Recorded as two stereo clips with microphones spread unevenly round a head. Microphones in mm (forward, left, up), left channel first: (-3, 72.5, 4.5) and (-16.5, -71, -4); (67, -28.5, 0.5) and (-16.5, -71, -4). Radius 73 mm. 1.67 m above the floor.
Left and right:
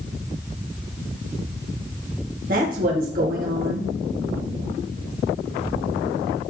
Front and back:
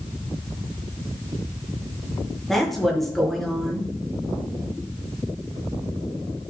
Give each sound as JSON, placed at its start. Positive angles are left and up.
{"t": 2.5, "sound": "a woman speaking", "azimuth_deg": -60, "distance_m": 2.5}